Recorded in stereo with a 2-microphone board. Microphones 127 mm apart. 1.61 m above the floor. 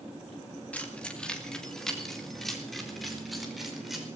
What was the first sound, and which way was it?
Keys jangling, 10° left (ahead or behind).